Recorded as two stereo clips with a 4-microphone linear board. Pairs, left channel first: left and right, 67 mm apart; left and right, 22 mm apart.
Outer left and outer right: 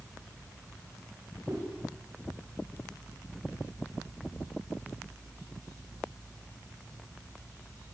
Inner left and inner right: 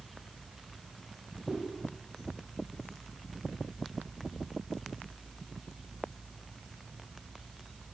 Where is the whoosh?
55° right (ahead or behind), 7.5 m.